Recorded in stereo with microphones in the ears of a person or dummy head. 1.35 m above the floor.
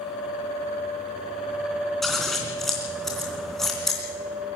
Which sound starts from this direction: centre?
Scissors, at 2.0 s.